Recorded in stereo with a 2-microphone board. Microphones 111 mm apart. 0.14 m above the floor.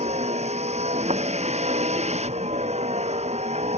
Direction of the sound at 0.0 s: 80° right.